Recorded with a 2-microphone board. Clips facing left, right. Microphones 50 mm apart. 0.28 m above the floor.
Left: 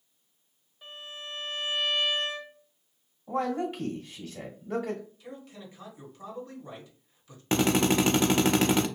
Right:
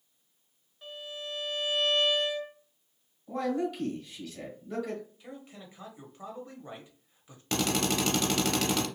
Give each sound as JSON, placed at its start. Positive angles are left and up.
{"t": 0.8, "sound": "a violin", "side_deg": 0, "distance_m": 1.1}
{"t": 3.3, "sound": "a man speaking", "side_deg": 35, "distance_m": 1.1}
{"t": 5.2, "sound": "a man speaking", "side_deg": -25, "distance_m": 1.1}
{"t": 7.5, "sound": "a drill", "side_deg": 30, "distance_m": 0.5}